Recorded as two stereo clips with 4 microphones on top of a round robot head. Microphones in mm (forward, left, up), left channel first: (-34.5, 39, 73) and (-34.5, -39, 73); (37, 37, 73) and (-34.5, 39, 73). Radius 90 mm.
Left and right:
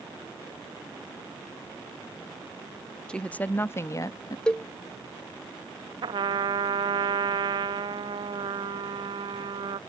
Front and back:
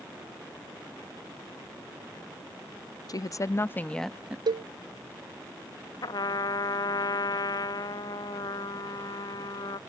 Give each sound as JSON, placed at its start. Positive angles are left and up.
{"t": 3.1, "sound": "a woman speaking", "azimuth_deg": 15}
{"t": 4.5, "sound": "a cowbell", "azimuth_deg": 170}
{"t": 6.0, "sound": "a trumpet", "azimuth_deg": -45}